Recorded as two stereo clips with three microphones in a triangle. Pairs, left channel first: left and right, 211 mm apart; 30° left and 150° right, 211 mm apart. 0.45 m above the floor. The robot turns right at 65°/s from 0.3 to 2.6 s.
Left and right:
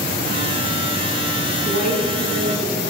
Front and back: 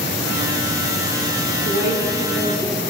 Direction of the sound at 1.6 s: 40° left.